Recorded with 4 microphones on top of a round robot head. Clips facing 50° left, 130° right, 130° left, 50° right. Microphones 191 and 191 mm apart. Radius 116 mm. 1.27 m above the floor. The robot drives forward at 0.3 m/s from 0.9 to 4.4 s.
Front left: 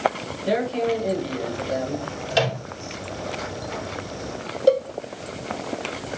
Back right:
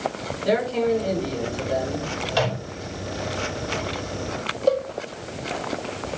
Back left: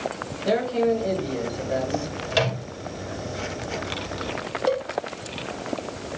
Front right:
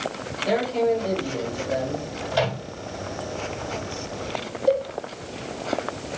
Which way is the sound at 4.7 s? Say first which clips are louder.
Front left 3 dB, front right 3 dB; 130° left.